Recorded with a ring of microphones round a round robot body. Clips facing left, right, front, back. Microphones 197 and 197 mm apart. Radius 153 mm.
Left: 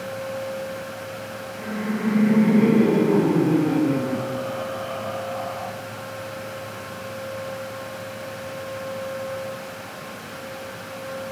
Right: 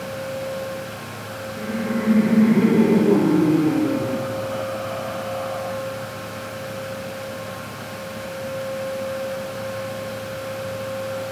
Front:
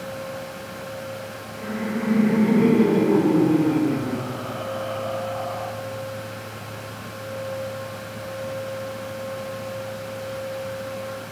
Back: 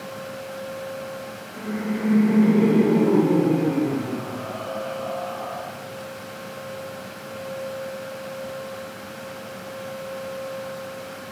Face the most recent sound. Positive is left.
turn(degrees=-95)